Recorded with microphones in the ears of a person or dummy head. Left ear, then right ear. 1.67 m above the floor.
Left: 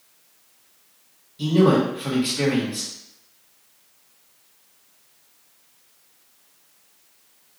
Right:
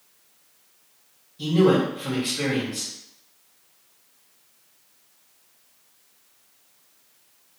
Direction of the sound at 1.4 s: 15° left (ahead or behind).